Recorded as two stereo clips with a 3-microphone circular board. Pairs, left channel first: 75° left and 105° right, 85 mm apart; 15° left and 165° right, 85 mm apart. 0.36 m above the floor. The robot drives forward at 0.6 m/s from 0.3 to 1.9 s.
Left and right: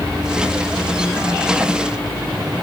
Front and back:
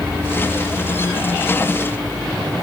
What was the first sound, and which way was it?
Only background noise.